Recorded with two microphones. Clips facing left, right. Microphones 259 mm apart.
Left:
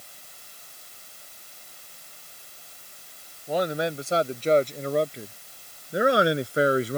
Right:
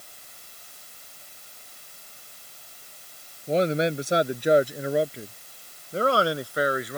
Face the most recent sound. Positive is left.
turn(degrees=30)  # may be behind; listen again after turning